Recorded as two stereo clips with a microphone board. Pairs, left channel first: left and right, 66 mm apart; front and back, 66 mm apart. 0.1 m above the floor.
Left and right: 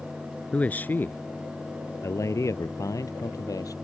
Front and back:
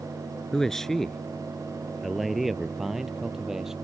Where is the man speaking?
70° left; by 3.8 s 100° left.